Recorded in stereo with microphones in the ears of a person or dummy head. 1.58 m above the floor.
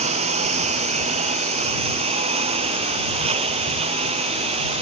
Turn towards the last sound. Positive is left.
turn(degrees=-35)  # may be behind; listen again after turning